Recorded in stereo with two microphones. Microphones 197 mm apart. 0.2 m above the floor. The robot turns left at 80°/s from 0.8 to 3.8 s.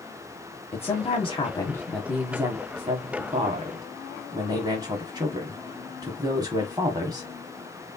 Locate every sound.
0.7 s a woman speaking: 30° left (ahead or behind), 1.1 m; by 7.3 s 20° right (ahead or behind), 1.1 m